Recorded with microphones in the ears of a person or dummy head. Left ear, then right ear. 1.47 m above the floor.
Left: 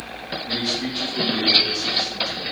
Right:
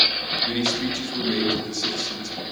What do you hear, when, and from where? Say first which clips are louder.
0.5 s a man speaking: even; 85° right, 3.5 m